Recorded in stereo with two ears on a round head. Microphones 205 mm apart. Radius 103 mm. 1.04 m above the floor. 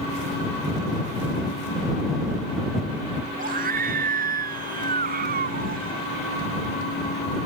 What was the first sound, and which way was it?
A scream, 40° right (ahead or behind).